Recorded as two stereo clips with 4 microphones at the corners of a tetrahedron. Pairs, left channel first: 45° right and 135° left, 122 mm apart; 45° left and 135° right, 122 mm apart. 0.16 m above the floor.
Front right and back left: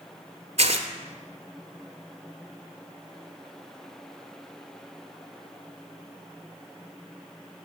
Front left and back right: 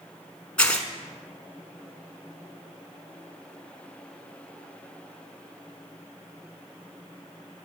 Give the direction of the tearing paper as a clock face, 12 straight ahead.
8 o'clock.